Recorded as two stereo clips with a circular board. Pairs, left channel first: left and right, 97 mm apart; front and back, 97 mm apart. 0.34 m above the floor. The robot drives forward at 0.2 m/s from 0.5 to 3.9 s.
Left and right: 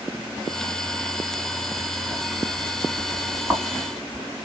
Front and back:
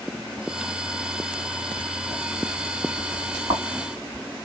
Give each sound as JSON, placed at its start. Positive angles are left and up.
{"t": 1.8, "sound": "writing", "azimuth_deg": -155, "distance_m": 2.0}